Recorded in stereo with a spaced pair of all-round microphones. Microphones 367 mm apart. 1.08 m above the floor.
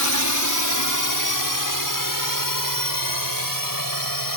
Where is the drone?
55° left (ahead or behind); by 4.4 s 65° left (ahead or behind).